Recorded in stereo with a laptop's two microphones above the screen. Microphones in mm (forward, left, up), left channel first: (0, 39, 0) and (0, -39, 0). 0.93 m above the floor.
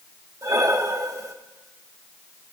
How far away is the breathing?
About 1.6 m.